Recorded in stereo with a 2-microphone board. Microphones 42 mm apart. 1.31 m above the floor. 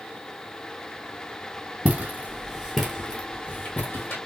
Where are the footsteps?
40° right (ahead or behind), 2 m; by 4.2 s 45° left (ahead or behind), 2.5 m.